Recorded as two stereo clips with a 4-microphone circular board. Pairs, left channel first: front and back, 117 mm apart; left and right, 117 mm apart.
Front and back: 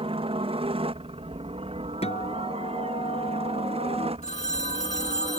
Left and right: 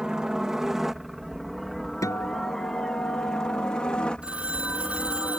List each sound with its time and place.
0.0 s a helicopter: 175° right; by 5.4 s 165° left
2.0 s a guitar: 25° left
4.2 s a phone ringing: 10° right